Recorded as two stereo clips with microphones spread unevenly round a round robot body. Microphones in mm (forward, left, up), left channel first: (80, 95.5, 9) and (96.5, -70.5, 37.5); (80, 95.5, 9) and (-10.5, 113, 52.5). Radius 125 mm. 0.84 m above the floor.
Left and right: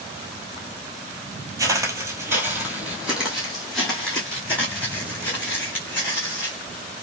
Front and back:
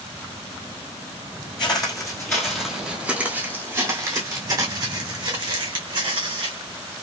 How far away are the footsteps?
About 0.9 m.